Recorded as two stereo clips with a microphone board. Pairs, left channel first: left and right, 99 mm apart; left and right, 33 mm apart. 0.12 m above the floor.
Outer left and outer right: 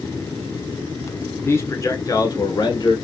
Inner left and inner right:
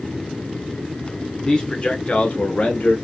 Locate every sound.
1.4 s a man speaking: 25° left (ahead or behind), 1.4 m; by 3.0 s 50° left (ahead or behind), 1.9 m